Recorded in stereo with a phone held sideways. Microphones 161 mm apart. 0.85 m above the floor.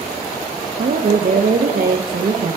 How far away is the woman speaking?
About 0.6 m.